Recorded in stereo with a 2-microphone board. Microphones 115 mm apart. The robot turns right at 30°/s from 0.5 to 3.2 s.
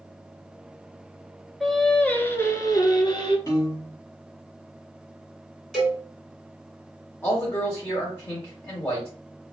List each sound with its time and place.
1.6 s singing: straight ahead, 0.6 m; by 3.4 s 50° left, 0.6 m
3.5 s a piano: 30° left (ahead or behind), 1.3 m
5.7 s a cowbell: centre (ahead or behind), 1.7 m
7.2 s a man speaking: 20° left (ahead or behind), 1.3 m